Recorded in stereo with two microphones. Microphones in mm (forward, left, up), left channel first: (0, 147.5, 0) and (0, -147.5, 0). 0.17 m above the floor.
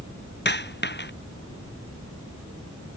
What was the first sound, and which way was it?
A dropped coin, 35° left (ahead or behind).